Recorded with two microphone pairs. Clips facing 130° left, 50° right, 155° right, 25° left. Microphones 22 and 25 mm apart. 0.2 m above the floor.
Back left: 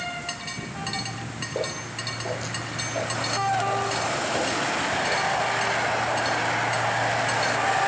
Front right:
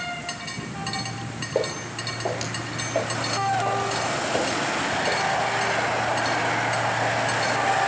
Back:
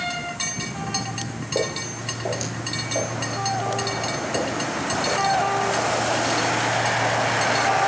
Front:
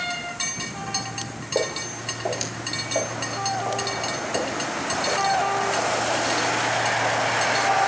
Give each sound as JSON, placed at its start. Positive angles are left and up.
{"t": 1.6, "sound": "footsteps", "azimuth_deg": -40, "distance_m": 5.5}